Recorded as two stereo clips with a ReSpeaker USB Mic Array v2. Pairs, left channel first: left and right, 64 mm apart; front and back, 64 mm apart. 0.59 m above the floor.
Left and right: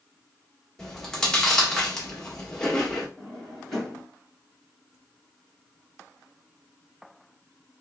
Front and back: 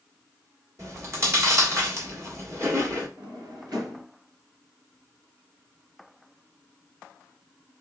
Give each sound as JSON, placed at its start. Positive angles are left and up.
{"t": 0.8, "sound": "chewing", "azimuth_deg": 165, "distance_m": 1.4}
{"t": 3.2, "sound": "a drawer", "azimuth_deg": 175, "distance_m": 2.5}